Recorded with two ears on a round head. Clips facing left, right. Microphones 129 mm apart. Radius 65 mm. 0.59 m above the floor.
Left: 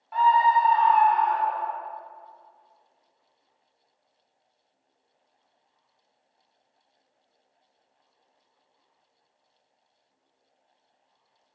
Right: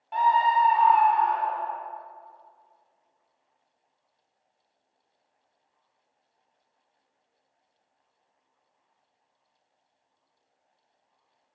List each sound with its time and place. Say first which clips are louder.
0.1 s a scream: left 2 dB; 30° right (ahead or behind), 0.9 m; by 1.8 s 5° left (ahead or behind), 2 m